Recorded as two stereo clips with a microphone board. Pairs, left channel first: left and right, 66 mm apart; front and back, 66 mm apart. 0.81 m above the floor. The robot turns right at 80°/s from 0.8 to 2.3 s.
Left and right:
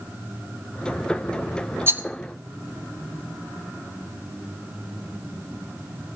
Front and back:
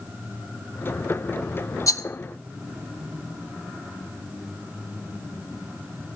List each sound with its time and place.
1.9 s a rattle: 35° right, 0.6 m; by 2.0 s 20° right, 0.6 m